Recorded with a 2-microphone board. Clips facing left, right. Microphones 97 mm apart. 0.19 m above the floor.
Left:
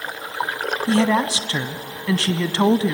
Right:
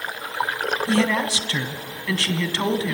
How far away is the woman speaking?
About 1.2 m.